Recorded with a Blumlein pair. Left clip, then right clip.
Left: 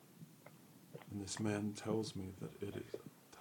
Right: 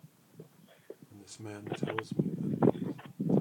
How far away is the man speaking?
About 1.6 m.